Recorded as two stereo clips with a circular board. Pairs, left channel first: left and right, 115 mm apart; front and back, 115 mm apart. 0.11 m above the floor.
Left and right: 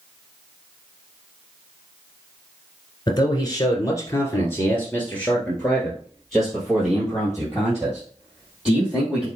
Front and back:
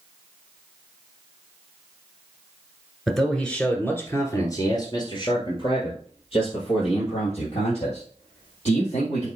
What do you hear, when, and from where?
3.1 s a man speaking: 90° left, 1.4 m; by 9.3 s 10° right, 3.5 m